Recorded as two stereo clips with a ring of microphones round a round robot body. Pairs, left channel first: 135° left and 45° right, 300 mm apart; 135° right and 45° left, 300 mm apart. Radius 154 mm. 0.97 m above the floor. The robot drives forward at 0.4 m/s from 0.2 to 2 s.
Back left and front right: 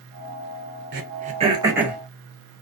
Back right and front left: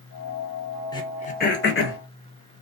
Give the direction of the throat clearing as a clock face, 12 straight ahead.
2 o'clock.